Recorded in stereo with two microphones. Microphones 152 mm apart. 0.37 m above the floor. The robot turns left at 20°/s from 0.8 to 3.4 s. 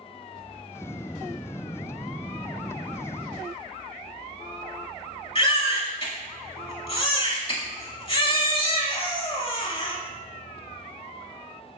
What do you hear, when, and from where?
5.3 s a baby crying: 40° left (ahead or behind), 0.7 m